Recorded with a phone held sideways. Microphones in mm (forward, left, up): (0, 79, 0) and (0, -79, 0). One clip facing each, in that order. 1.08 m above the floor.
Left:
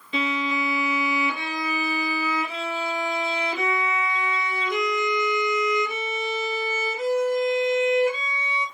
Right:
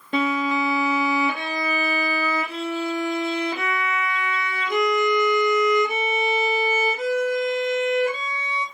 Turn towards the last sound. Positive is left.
turn(degrees=-60)  # may be behind; listen again after turning